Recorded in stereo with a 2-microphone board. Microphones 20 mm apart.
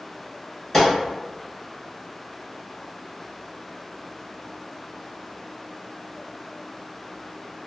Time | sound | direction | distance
0.7 | a gunshot | 20° left (ahead or behind) | 1.6 m